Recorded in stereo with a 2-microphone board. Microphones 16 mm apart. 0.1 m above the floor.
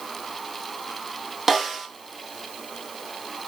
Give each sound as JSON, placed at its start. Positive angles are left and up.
{"t": 1.5, "sound": "a snare drum", "side_deg": -15, "distance_m": 1.4}